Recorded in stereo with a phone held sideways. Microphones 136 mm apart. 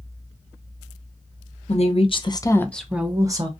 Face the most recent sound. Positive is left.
turn(degrees=-35)  # may be behind; listen again after turning